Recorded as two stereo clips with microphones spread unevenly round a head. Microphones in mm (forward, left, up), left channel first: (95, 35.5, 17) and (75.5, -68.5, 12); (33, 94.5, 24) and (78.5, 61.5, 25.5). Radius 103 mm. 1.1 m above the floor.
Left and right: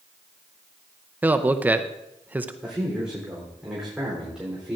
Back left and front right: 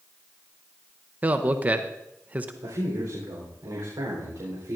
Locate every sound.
1.2 s a man speaking: 50° right, 0.6 m
2.6 s a man speaking: 15° right, 3.5 m